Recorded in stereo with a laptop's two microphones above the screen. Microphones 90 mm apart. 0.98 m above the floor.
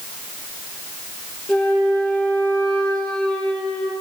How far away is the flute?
About 6.5 m.